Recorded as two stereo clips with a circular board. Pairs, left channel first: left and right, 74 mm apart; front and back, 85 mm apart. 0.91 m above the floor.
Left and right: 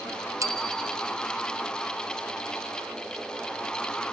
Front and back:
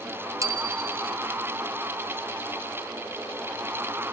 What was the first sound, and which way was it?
A bicycle bell, 130° right.